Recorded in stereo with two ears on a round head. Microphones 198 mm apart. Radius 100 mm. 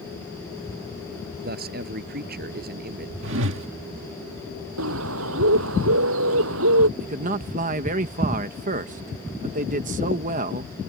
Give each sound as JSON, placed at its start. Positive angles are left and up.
{"t": 1.4, "sound": "a man speaking", "side_deg": -45}
{"t": 3.2, "sound": "a whoosh", "side_deg": -65}
{"t": 4.8, "sound": "a bird", "side_deg": -75}
{"t": 7.0, "sound": "a man speaking", "side_deg": -40}